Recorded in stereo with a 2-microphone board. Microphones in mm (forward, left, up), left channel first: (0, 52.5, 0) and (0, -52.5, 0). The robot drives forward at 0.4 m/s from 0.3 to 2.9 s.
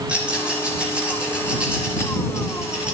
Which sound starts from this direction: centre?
A rattle, at 0.1 s.